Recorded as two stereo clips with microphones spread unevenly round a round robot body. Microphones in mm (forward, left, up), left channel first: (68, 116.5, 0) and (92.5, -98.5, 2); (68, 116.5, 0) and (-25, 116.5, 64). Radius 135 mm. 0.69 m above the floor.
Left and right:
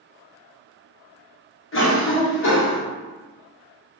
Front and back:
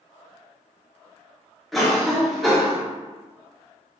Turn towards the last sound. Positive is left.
turn(degrees=75)